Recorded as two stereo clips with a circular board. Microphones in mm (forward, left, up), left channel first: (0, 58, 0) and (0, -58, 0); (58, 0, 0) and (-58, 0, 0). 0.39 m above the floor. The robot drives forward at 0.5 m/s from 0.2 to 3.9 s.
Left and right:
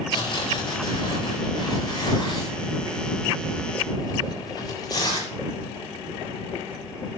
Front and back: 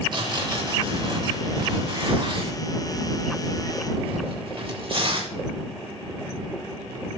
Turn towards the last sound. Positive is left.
turn(degrees=145)